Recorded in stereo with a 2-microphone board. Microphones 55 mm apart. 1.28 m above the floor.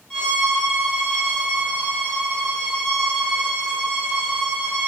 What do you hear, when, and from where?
0.1 s a violin: 10° left (ahead or behind), 1.7 m